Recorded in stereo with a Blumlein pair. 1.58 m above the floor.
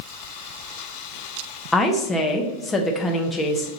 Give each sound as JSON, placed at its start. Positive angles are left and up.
{"t": 1.7, "sound": "a woman speaking", "azimuth_deg": 10, "distance_m": 0.7}